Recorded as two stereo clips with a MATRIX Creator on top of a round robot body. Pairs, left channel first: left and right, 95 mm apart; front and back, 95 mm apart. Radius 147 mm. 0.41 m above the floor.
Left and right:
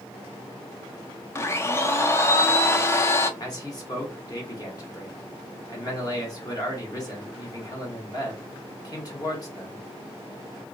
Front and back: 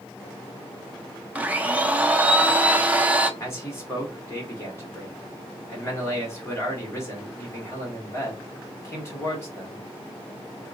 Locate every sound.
1.4 s a blender: 120° left, 0.7 m
3.4 s a man speaking: 55° left, 1.9 m